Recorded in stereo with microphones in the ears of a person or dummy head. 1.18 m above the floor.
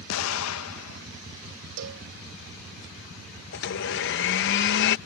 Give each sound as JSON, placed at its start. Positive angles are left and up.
{"t": 0.1, "sound": "an explosion", "side_deg": 75}
{"t": 1.8, "sound": "a cowbell", "side_deg": -75}
{"t": 3.5, "sound": "a blender", "side_deg": 60}